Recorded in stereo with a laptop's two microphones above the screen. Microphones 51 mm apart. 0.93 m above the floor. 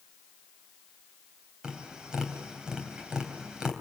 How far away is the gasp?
I don't hear a gasp.